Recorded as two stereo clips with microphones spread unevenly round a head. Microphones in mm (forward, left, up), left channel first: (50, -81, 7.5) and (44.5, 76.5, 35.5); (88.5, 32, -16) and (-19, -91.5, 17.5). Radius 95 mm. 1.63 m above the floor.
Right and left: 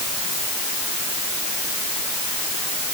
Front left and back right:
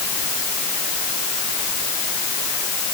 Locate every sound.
Only background noise.